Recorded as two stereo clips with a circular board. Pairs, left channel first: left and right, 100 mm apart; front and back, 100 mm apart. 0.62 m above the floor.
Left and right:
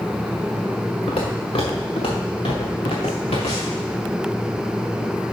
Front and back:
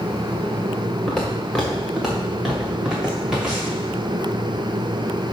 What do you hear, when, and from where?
1.1 s footsteps: 80° left, 3 m; by 3.8 s 100° left, 4 m